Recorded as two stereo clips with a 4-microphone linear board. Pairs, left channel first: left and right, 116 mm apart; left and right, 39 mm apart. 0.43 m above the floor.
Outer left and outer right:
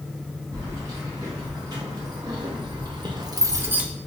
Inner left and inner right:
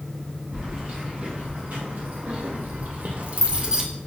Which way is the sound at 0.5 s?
35° right (ahead or behind).